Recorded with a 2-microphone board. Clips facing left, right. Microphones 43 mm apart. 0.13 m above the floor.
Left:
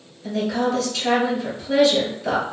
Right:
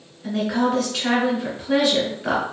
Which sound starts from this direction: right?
A woman speaking, at 0.2 s.